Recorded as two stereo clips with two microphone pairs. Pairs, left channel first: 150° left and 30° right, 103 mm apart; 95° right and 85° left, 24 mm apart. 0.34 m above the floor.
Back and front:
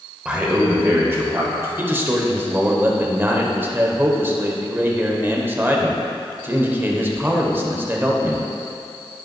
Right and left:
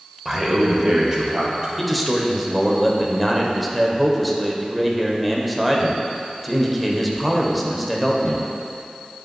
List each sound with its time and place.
0.2 s a man speaking: 30° left, 1.1 m
1.8 s a man speaking: 5° right, 0.9 m